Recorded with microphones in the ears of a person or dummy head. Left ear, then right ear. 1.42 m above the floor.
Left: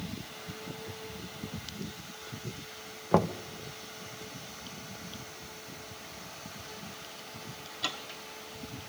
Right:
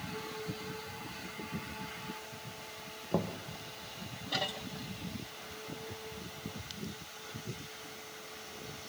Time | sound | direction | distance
3.1 | knocking | 55° left (ahead or behind) | 1.1 m